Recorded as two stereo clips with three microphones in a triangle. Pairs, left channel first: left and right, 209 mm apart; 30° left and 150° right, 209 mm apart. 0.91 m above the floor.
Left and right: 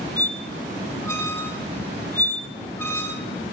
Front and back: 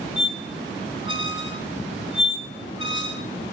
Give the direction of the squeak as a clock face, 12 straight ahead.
12 o'clock.